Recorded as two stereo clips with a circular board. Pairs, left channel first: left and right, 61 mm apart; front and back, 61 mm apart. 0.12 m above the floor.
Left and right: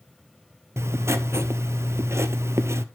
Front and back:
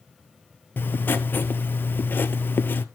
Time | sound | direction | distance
0.8 | writing | 55° right | 0.7 m